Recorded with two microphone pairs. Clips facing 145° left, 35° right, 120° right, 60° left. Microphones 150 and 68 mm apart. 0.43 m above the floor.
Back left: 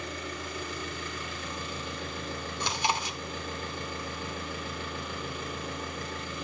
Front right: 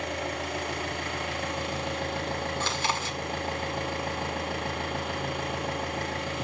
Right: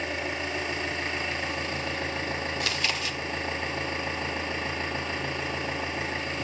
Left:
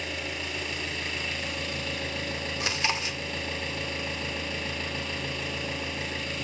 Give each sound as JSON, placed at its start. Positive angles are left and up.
{"t": 0.0, "sound": "an engine running", "azimuth_deg": -55, "distance_m": 1.1}
{"t": 2.6, "sound": "chewing", "azimuth_deg": 95, "distance_m": 1.3}